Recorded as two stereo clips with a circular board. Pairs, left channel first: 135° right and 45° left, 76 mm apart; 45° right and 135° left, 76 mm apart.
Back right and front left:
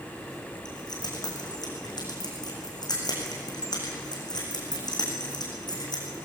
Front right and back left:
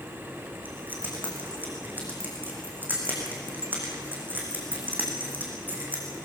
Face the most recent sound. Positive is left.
turn(degrees=-160)